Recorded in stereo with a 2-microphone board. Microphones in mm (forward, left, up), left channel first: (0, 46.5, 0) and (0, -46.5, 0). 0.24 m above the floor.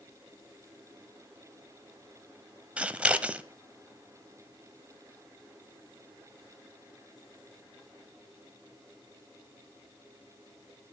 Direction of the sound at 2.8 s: 15° right (ahead or behind).